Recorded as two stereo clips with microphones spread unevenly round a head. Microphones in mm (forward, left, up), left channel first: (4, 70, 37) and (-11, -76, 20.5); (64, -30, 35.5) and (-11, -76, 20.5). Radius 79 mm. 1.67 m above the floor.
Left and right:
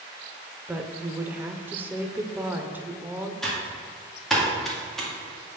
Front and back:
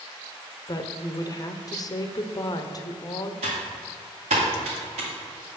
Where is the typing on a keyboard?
170° left, 2.0 m.